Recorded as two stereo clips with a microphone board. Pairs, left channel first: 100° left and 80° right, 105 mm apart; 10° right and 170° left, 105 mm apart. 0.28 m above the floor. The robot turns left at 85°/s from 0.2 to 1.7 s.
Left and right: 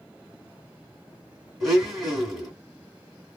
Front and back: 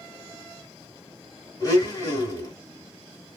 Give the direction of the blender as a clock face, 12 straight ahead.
12 o'clock.